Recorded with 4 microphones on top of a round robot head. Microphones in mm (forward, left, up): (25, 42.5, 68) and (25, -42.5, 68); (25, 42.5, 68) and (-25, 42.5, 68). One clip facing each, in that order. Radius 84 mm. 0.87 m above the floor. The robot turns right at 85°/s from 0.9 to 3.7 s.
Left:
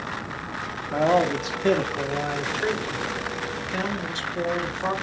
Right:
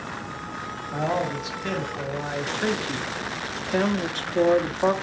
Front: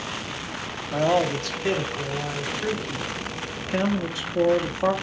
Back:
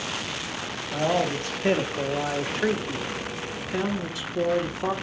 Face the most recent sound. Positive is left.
turn(degrees=-50)